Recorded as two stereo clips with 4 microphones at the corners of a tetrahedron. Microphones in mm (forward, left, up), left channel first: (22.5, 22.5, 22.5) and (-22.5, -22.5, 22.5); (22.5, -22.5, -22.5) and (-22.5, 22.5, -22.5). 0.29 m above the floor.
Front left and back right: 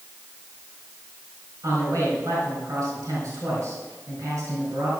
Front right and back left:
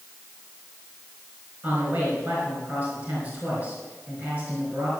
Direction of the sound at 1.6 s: 160° right.